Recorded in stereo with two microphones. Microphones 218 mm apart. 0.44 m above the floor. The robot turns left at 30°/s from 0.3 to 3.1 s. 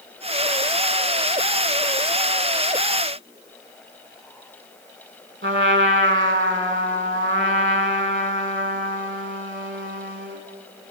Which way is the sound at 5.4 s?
65° right (ahead or behind).